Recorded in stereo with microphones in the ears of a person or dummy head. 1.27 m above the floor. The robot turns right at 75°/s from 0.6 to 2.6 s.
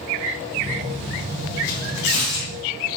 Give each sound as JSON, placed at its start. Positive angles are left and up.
{"t": 1.6, "sound": "tearing paper", "azimuth_deg": 65, "distance_m": 2.0}